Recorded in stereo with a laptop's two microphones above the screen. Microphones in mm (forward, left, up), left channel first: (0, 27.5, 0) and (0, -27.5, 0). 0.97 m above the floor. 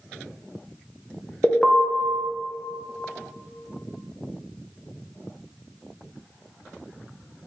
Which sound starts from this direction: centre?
An alarm, at 1.4 s.